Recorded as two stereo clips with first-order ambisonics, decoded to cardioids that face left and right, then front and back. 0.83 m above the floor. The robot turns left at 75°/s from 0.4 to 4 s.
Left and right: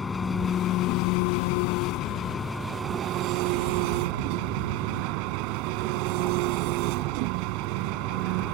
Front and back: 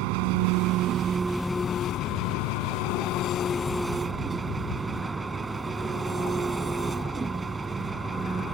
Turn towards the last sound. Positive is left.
turn(degrees=-105)